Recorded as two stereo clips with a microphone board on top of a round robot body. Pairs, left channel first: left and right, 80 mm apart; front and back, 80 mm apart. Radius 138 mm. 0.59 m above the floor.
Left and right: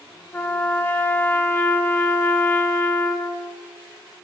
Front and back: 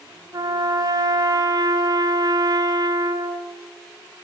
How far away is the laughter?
No laughter in this recording.